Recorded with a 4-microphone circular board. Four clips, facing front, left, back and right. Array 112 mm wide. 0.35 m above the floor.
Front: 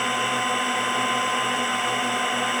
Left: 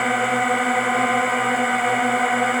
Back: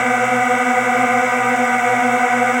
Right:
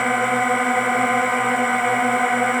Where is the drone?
175° right.